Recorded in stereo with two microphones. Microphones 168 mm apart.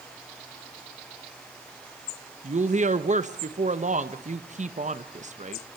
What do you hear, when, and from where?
2.4 s a woman speaking: 45° right (ahead or behind), 1.1 m